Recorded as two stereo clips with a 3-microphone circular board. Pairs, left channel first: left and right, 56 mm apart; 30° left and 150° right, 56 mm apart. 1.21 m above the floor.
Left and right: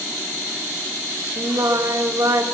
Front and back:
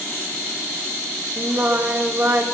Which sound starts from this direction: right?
Singing, at 1.4 s.